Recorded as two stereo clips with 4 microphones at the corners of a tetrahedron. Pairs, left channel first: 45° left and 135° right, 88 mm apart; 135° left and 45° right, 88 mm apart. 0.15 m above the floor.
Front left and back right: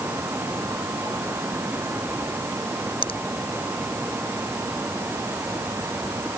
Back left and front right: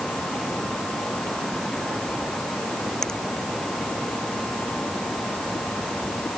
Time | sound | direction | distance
3.0 | a finger snap | 50° left | ?